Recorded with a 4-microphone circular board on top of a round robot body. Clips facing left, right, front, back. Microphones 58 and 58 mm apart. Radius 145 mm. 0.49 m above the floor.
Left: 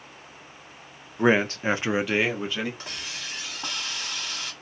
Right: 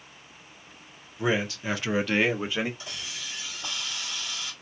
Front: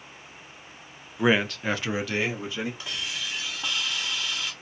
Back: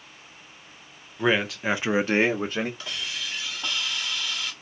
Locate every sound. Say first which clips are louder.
1.2 s a man speaking: left 6 dB, front 1 dB; 80° left, 1.1 m; by 2.7 s 160° right, 1.2 m
2.8 s a hiss: left 2 dB, even; 85° left, 2.0 m